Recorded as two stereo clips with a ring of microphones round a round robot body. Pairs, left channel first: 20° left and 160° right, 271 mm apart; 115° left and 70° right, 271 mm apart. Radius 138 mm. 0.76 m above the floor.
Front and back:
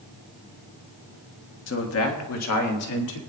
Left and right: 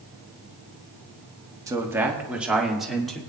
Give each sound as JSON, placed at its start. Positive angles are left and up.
{"t": 1.7, "sound": "a man speaking", "azimuth_deg": 5, "distance_m": 1.3}